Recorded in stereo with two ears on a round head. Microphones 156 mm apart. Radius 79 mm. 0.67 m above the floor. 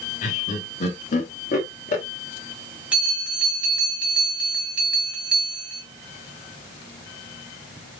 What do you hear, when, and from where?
0.2 s laughter: 40° left (ahead or behind), 1.1 m
2.9 s a bell: 5° right (ahead or behind), 1.5 m